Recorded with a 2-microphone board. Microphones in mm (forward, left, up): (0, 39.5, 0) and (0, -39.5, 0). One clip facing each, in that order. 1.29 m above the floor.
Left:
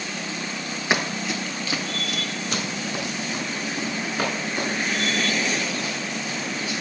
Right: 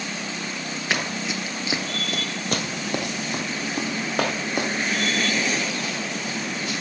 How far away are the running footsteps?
About 1.3 m.